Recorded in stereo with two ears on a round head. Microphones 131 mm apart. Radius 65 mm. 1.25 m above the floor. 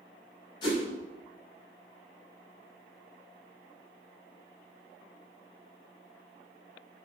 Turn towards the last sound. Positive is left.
turn(degrees=30)  # may be behind; listen again after turning